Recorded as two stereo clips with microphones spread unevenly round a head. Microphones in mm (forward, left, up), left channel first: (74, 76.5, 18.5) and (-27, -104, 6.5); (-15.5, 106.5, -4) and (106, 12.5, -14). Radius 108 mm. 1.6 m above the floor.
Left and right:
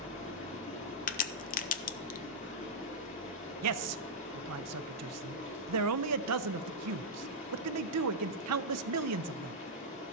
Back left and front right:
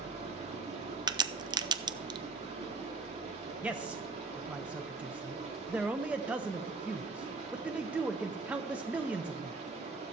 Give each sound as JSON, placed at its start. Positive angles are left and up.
{"t": 0.0, "sound": "running water", "azimuth_deg": 5, "distance_m": 3.5}
{"t": 1.1, "sound": "a crack", "azimuth_deg": 20, "distance_m": 0.6}
{"t": 3.6, "sound": "a man speaking", "azimuth_deg": -120, "distance_m": 0.6}